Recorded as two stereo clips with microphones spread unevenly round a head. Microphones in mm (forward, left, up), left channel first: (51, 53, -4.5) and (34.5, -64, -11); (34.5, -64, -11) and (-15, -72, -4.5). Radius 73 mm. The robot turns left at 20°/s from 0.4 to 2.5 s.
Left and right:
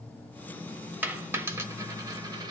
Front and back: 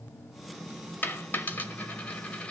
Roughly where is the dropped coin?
Ahead right.